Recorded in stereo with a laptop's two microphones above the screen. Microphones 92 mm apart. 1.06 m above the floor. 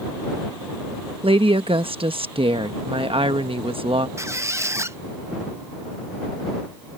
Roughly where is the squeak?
Right.